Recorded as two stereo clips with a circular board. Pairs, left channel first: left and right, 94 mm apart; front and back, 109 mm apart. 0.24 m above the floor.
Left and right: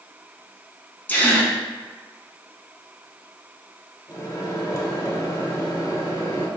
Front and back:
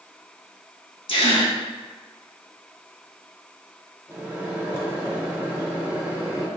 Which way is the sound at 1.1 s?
20° left.